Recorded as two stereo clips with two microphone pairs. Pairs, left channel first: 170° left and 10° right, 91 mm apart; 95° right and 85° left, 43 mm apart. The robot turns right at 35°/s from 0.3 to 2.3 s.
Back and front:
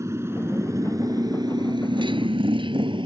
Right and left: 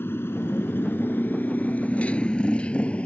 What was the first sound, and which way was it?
A motorcycle, 65° right.